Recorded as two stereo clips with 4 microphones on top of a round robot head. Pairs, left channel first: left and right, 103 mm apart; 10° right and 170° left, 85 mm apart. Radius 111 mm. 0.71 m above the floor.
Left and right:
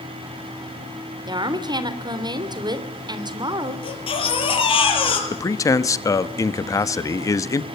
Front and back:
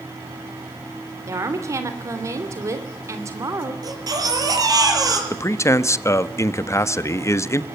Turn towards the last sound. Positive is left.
turn(degrees=40)